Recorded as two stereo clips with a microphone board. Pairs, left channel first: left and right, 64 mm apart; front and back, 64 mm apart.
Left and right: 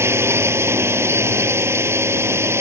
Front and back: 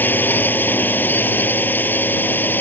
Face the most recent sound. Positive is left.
turn(degrees=-55)